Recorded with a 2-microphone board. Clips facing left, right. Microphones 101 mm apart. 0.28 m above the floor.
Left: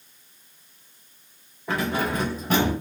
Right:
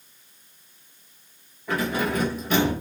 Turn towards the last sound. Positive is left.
turn(degrees=45)  # may be behind; listen again after turning